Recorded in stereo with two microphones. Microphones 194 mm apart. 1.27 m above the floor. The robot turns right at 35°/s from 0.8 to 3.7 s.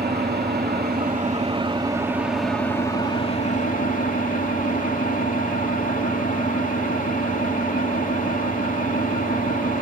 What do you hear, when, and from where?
0.0 s an engine running: 55° right, 2.5 m; by 9.8 s 45° left, 2.5 m